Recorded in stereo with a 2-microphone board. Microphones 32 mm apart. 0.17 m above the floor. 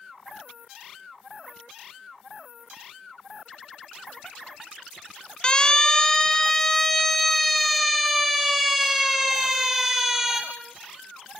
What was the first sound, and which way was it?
A siren, 25° left (ahead or behind).